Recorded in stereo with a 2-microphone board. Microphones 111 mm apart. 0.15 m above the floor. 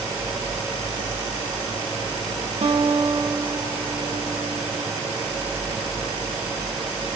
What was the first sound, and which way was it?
A guitar, 75° right (ahead or behind).